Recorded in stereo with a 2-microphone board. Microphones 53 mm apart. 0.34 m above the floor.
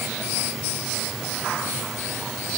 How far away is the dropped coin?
No dropped coin in this recording.